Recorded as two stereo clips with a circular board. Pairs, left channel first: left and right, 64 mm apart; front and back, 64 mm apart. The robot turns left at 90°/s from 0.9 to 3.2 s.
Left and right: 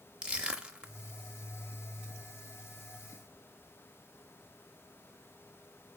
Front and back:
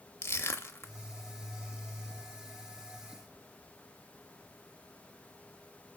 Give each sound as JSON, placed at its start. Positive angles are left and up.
{"t": 0.2, "sound": "crushing", "azimuth_deg": -25, "distance_m": 0.6}